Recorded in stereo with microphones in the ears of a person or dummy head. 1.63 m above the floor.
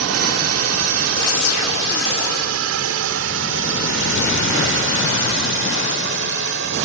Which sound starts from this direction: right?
A drone, at 0.0 s.